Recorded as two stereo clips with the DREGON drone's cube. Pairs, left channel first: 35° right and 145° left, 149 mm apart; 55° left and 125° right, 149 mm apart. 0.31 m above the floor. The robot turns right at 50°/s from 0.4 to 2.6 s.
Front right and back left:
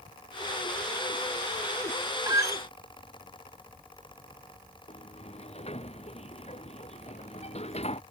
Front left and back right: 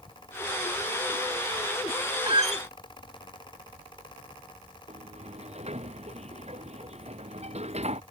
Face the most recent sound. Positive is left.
turn(degrees=-80)